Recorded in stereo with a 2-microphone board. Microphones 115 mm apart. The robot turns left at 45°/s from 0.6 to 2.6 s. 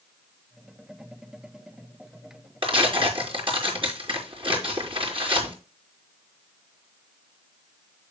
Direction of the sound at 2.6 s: 50° right (ahead or behind).